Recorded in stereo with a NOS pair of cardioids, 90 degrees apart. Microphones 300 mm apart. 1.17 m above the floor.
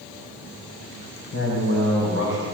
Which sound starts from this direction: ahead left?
A man speaking, at 1.3 s.